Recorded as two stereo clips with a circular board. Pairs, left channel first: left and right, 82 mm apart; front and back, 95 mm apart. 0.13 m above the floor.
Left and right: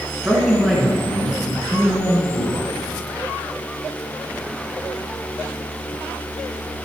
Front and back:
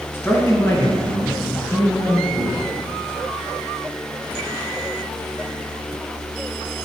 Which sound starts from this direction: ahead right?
A man speaking, at 0.1 s.